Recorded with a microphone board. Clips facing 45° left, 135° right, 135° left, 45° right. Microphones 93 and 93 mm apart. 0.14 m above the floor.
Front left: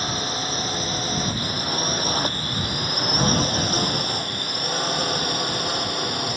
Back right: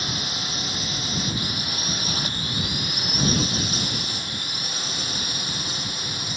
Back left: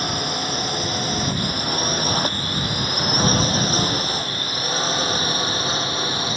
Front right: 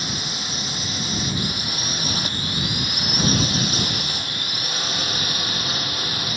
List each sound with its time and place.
0.0 s a drone: 100° left; by 6.4 s 75° left